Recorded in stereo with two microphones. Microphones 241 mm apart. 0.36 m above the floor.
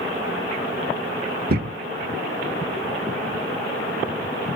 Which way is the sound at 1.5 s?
40° right (ahead or behind).